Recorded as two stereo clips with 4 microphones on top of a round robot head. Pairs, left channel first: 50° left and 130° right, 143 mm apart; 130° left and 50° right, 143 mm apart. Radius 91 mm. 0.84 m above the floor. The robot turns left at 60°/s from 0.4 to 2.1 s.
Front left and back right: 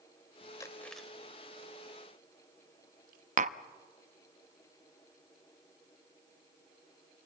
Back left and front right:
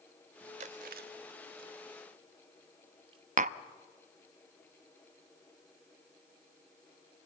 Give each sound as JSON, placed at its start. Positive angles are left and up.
{"t": 0.6, "sound": "chewing", "azimuth_deg": -15, "distance_m": 0.8}
{"t": 3.4, "sound": "tapping", "azimuth_deg": -90, "distance_m": 0.7}